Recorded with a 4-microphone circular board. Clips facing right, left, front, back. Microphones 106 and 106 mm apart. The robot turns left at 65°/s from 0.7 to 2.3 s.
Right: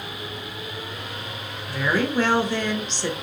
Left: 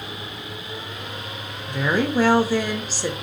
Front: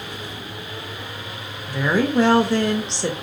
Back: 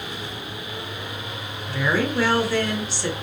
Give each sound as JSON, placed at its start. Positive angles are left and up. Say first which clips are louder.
{"t": 1.7, "sound": "a woman speaking", "louder": "left 2 dB, front 3 dB", "azimuth_deg": 55, "distance_m": 0.8}